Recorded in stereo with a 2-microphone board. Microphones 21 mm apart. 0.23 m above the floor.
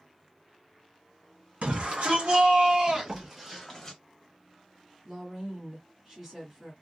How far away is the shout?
About 1.9 m.